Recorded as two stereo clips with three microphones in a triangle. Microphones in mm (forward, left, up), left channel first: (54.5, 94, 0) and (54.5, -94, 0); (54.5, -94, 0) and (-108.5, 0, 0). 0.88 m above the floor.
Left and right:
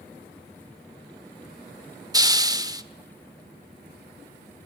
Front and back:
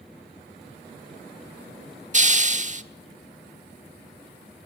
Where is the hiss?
160° right, 1.2 m.